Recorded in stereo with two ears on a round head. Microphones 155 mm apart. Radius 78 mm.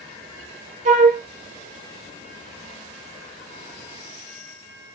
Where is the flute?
40° right (ahead or behind), 1.0 m.